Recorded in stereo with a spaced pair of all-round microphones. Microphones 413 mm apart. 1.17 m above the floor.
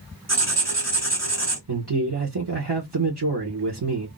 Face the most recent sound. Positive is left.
turn(degrees=-70)  # may be behind; listen again after turning